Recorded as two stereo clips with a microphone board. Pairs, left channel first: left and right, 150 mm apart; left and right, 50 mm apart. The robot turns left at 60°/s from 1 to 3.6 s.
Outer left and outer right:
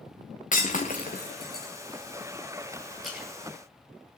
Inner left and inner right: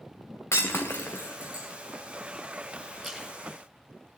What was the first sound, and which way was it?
Breaking glass, 60° left (ahead or behind).